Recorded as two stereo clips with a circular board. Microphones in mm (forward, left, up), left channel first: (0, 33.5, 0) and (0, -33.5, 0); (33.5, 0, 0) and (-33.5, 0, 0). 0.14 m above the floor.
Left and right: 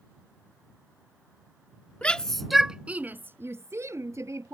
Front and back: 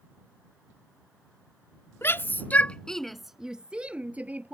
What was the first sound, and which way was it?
A shout, 25° left.